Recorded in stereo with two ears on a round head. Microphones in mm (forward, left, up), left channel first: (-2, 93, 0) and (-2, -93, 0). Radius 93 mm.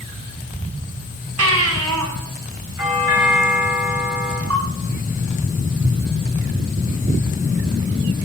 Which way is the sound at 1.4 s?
80° right.